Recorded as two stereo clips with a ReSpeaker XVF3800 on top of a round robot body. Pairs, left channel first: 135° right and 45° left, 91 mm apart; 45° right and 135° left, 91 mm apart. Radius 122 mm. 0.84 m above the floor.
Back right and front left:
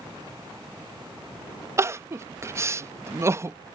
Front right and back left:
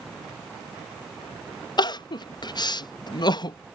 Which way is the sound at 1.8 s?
10° right.